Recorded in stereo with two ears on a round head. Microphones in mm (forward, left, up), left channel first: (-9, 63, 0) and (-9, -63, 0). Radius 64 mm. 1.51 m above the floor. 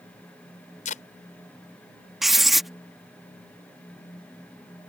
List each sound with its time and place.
0.8 s tape being pulled: 60° left (ahead or behind)
2.2 s writing: centre (ahead or behind)